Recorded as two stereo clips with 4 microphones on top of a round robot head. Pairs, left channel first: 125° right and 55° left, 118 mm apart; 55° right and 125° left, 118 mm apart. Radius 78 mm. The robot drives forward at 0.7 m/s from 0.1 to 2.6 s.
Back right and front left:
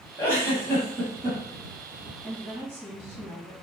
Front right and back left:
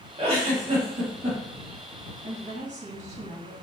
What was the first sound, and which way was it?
A giggle, 165° left.